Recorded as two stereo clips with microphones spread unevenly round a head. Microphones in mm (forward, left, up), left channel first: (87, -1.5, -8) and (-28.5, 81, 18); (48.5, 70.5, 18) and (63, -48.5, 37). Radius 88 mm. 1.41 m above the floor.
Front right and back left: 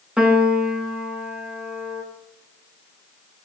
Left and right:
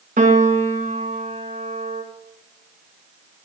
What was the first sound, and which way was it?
A piano, 130° right.